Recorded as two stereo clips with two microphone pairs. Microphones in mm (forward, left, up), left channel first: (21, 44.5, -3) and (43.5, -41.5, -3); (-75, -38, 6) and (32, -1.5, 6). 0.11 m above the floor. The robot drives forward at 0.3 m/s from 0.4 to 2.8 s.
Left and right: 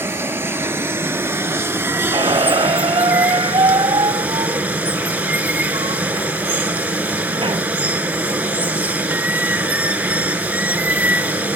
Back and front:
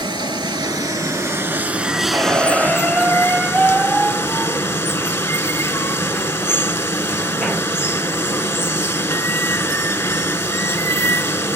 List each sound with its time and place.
0.0 s running water: 20° right, 0.7 m; by 11.6 s 125° right, 0.5 m
2.1 s a squeak: 60° right, 0.6 m; by 7.6 s 80° right, 0.5 m